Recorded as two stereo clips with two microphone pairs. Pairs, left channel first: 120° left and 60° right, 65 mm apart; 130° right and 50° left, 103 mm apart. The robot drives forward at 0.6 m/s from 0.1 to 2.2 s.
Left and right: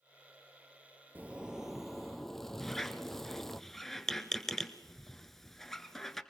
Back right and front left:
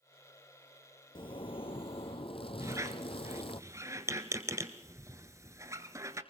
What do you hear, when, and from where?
1.1 s a zipper: 110° right, 0.6 m; by 3.6 s 150° right, 1.0 m
2.6 s a squeak: 40° left, 1.1 m